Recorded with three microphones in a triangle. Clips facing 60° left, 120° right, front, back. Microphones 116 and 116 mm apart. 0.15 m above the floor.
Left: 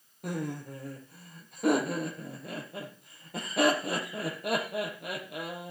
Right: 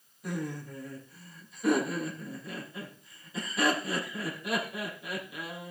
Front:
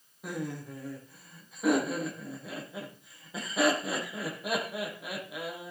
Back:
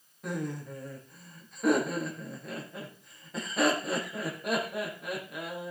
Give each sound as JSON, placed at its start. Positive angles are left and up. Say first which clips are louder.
{"t": 0.2, "sound": "laughter", "louder": "left 1 dB, back 1 dB", "azimuth_deg": 85, "distance_m": 5.0}